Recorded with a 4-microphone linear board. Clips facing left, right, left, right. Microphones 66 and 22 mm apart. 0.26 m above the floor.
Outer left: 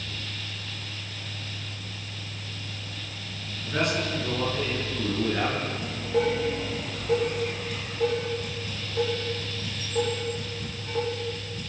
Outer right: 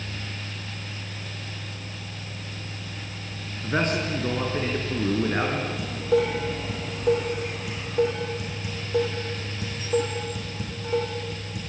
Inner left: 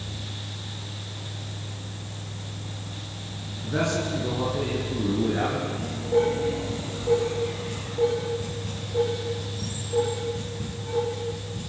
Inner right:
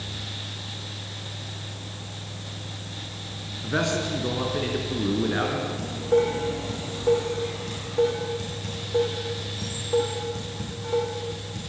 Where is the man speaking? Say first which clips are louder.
Outer right 2 dB, inner right 1 dB; 35° right (ahead or behind), 4 m.